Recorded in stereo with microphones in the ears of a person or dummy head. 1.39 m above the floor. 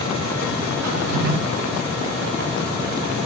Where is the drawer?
65° right (ahead or behind), 1.6 m.